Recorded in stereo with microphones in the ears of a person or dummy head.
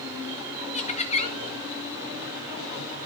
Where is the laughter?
30° left (ahead or behind), 1.7 m.